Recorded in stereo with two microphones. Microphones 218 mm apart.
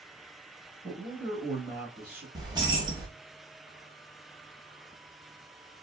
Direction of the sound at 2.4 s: 20° right (ahead or behind).